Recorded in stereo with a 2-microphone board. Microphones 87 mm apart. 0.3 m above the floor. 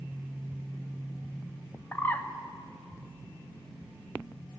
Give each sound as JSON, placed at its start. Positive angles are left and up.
{"t": 1.9, "sound": "a bird", "side_deg": 25, "distance_m": 0.7}